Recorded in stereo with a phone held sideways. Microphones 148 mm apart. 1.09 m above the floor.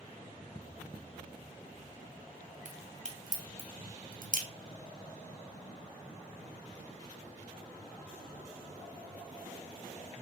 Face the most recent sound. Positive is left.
turn(degrees=-55)  # may be behind; listen again after turning